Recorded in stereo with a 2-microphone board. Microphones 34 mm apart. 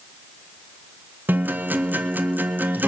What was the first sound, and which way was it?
A guitar, 75° right (ahead or behind).